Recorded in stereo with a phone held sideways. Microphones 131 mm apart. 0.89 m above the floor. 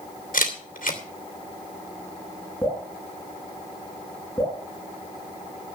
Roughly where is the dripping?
Centre.